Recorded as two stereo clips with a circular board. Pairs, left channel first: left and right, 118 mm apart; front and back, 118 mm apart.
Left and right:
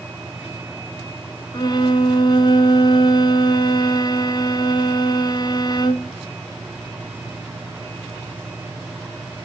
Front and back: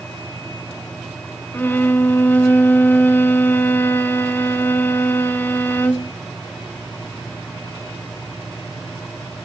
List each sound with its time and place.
1.5 s a violin: 65° left, 0.6 m